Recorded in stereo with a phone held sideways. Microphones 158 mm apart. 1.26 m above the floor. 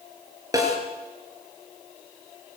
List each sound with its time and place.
0.5 s a snare drum: 20° right (ahead or behind), 5 m